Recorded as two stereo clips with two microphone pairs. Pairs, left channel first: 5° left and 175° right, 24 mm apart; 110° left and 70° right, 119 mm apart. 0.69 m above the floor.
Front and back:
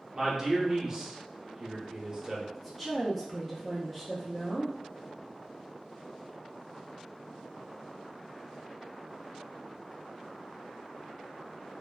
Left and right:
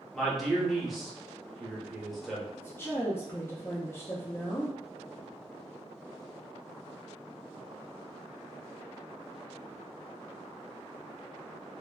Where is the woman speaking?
90° left, 0.5 m.